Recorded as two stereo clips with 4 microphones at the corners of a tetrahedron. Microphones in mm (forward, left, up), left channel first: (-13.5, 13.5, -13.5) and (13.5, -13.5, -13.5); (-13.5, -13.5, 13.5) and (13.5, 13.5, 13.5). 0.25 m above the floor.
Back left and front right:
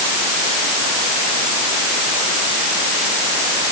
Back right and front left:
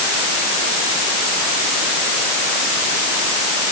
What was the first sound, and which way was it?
Only background noise.